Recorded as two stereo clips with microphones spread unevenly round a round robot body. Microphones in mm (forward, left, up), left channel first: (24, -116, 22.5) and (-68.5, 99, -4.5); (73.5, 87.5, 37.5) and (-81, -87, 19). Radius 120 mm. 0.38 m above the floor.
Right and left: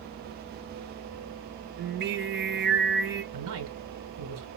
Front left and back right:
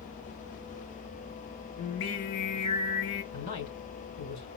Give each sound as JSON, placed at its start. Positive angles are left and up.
{"t": 1.8, "sound": "singing", "azimuth_deg": 70, "distance_m": 1.2}
{"t": 3.3, "sound": "a man speaking", "azimuth_deg": 85, "distance_m": 4.0}